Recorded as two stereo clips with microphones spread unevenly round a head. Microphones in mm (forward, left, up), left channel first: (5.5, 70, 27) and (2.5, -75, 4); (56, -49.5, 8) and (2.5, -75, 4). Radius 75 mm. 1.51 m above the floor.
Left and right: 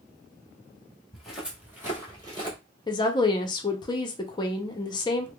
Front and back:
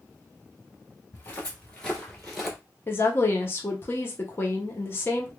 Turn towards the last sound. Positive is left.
turn(degrees=55)